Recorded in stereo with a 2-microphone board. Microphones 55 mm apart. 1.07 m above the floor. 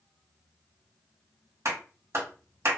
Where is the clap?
60° right (ahead or behind), 1.6 m.